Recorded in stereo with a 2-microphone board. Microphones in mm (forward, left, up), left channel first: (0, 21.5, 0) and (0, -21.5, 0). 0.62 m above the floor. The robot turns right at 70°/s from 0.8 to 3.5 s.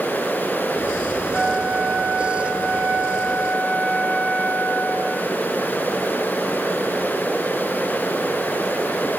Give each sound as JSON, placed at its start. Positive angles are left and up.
{"t": 1.3, "sound": "a flute", "azimuth_deg": -155, "distance_m": 7.0}